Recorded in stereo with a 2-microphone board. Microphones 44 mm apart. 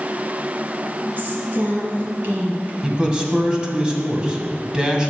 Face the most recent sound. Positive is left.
turn(degrees=-20)  # may be behind; listen again after turning